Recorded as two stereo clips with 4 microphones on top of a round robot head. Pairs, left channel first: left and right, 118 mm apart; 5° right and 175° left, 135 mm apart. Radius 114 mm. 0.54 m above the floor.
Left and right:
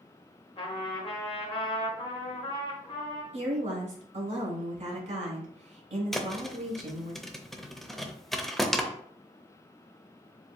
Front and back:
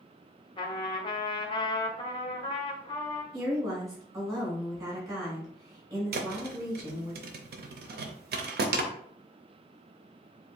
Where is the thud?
Straight behind, 0.7 m.